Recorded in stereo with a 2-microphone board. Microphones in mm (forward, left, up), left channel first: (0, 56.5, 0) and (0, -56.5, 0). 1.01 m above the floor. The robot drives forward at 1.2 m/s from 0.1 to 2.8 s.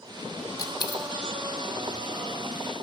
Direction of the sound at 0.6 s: 35° left (ahead or behind).